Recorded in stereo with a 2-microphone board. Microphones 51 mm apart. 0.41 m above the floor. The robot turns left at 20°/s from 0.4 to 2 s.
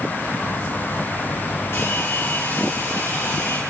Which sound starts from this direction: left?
A hair dryer, at 1.7 s.